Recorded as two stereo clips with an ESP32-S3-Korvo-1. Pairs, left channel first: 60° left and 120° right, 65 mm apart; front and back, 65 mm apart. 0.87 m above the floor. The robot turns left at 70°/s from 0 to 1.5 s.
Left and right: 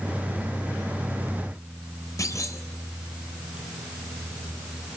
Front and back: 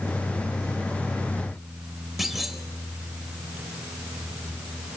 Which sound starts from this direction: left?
A clunk, at 2.2 s.